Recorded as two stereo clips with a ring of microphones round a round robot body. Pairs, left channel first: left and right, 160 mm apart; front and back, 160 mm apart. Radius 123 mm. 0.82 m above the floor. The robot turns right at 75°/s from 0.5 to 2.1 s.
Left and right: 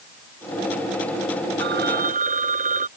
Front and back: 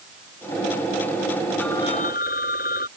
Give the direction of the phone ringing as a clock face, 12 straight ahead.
3 o'clock.